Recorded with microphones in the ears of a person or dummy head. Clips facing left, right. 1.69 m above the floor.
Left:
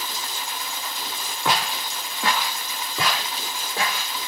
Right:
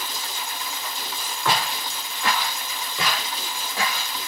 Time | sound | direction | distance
1.4 | footsteps | 20° left (ahead or behind) | 4.5 m